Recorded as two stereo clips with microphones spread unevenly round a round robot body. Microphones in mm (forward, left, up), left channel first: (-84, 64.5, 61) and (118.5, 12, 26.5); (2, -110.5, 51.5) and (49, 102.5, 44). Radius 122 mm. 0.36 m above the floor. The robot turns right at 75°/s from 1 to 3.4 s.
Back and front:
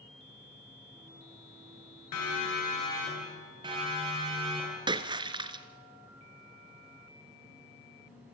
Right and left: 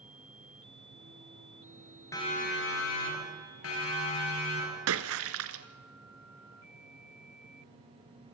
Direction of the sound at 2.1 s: Straight behind.